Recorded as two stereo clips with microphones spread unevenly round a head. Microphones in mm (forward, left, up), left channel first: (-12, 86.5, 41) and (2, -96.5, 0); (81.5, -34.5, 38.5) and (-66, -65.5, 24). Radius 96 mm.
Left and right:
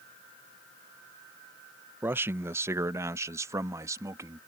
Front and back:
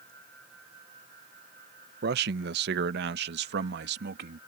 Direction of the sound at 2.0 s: 170° right.